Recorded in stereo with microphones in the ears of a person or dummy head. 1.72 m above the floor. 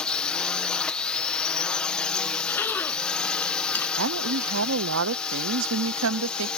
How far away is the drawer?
I don't hear a drawer.